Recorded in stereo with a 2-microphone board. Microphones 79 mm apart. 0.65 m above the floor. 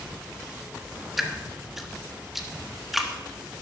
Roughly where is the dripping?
Centre.